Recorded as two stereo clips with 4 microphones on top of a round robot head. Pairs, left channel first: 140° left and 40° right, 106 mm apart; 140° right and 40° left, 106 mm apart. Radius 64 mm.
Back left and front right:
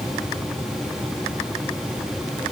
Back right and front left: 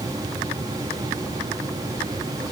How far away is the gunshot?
I don't hear a gunshot.